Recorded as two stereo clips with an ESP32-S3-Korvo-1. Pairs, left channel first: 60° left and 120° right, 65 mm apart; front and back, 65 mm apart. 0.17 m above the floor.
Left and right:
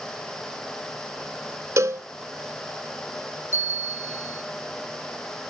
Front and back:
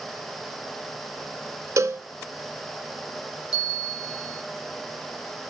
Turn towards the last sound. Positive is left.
turn(degrees=100)